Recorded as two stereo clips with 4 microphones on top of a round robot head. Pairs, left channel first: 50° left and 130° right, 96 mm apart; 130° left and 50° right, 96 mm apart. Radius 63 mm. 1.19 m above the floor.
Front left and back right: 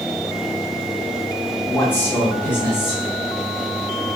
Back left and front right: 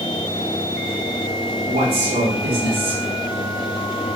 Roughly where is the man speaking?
Ahead.